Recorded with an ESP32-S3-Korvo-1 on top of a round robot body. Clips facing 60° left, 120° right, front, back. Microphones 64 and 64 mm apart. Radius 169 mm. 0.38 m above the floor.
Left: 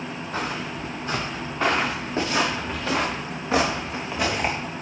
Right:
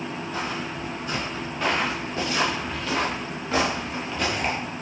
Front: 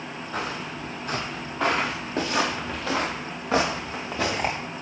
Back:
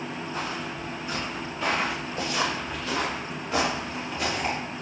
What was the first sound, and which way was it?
Footsteps, 10° left.